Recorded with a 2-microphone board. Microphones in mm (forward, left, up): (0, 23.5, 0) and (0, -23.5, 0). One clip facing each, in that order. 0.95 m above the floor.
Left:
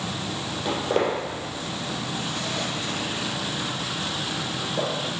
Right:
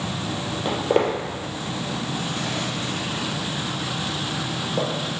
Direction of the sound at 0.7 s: 25° right (ahead or behind).